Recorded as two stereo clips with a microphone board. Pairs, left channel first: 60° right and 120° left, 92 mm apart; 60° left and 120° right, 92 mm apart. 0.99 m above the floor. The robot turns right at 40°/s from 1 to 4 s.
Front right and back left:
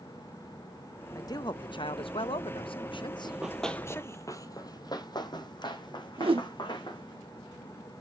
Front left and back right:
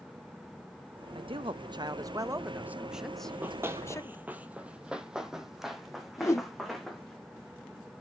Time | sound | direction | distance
1.1 | a man speaking | 110° right | 0.6 m
3.2 | running footsteps | 175° left | 1.1 m
6.2 | a whoosh | 110° left | 1.0 m